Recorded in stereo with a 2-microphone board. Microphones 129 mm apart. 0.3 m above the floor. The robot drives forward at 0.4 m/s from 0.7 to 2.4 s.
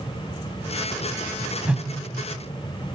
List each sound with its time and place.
1.6 s a whoosh: 10° right (ahead or behind), 1.2 m